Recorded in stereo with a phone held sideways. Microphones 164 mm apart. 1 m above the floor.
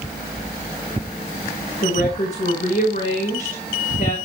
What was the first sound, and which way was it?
A woman speaking, 70° left (ahead or behind).